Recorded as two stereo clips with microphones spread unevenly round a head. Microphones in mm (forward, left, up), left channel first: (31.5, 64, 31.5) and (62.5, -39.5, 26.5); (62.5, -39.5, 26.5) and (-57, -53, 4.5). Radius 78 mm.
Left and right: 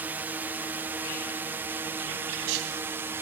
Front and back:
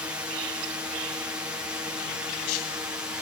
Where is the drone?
130° right; by 3.2 s 120° right.